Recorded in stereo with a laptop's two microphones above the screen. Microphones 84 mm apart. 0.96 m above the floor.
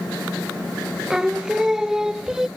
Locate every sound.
1.1 s singing: 5° right (ahead or behind)